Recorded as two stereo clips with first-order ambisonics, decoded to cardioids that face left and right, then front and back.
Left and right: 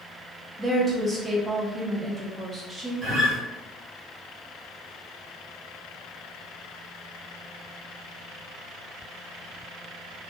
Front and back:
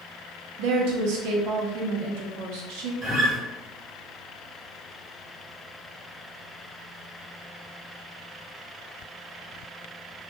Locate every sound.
0.6 s a woman speaking: 170° right, 0.6 m
3.0 s a guitar: 115° right, 1.8 m